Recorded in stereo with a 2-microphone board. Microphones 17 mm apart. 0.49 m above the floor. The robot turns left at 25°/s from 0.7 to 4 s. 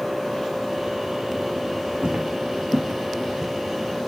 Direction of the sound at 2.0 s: 70° right (ahead or behind).